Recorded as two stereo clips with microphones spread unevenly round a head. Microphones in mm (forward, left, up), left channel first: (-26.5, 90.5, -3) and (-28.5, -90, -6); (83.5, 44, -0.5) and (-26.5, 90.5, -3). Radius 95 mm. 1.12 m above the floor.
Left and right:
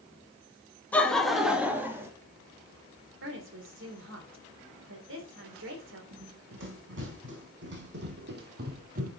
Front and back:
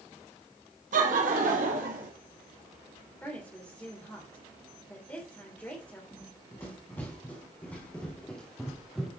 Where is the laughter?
170° left, 2 m; by 2.1 s 165° right, 2.5 m.